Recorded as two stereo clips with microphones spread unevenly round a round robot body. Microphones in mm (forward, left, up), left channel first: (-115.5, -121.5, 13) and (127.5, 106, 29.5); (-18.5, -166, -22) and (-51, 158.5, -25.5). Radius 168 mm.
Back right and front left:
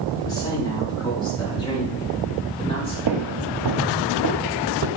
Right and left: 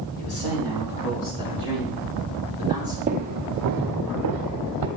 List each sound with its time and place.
0.2 s a man speaking: 60° right, 5 m; by 3.0 s 65° right, 7.5 m
3.1 s footsteps: 30° left, 1.1 m; by 4.9 s 80° left, 1.4 m